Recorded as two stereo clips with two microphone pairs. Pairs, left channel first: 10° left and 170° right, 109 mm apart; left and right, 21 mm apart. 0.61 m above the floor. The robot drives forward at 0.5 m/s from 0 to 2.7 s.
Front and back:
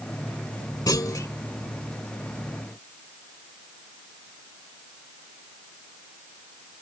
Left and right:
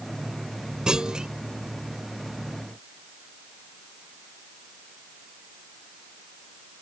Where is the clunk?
45° right; by 1.3 s 50° right.